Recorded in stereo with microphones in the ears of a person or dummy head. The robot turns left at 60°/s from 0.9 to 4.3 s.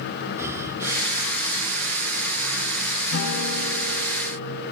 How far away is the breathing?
About 2.0 m.